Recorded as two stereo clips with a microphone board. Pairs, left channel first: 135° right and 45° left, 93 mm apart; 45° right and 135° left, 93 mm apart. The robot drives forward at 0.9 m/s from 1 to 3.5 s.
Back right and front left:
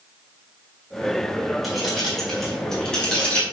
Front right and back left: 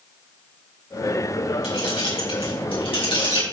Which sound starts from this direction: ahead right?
Keys jangling, at 1.6 s.